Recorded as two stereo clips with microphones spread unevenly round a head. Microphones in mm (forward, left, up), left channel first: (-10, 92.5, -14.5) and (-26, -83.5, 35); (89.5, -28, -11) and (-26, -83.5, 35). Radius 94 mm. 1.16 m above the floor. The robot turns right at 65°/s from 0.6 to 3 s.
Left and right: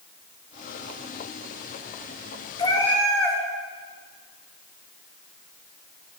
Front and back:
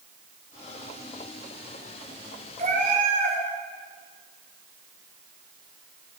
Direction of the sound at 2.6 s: 155° left.